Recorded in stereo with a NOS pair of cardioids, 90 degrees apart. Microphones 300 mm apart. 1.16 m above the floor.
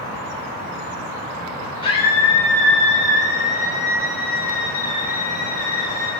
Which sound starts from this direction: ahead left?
A scream, at 1.8 s.